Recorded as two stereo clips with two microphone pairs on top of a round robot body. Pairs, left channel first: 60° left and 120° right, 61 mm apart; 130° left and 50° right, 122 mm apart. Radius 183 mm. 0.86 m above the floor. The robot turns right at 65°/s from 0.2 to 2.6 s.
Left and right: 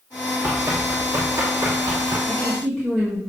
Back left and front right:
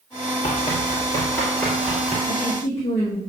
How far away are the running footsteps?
About 1.7 m.